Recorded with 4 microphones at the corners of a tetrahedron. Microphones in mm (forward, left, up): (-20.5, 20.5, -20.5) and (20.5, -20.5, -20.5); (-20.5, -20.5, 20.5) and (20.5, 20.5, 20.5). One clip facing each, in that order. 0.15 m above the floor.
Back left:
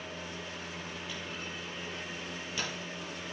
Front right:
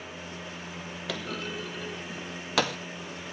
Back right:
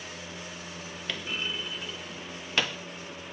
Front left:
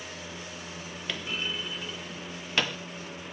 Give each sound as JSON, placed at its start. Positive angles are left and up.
{"t": 1.1, "sound": "a clunk", "azimuth_deg": -45, "distance_m": 0.8}